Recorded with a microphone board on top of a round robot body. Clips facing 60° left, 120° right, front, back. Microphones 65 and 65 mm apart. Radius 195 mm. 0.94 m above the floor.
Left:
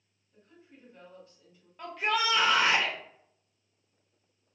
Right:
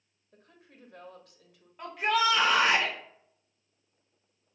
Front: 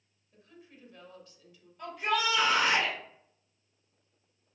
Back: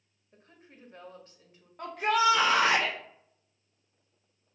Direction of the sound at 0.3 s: 130° right.